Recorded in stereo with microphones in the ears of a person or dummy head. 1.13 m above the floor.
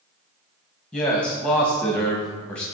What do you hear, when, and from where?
0.9 s a man speaking: 5° left (ahead or behind), 1.2 m